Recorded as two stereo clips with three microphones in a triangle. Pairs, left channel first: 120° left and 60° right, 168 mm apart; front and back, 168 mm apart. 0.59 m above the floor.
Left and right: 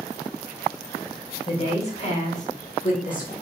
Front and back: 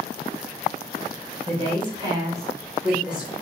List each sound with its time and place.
1.5 s a woman speaking: 155° left, 1.1 m; by 3.3 s 95° left, 1.7 m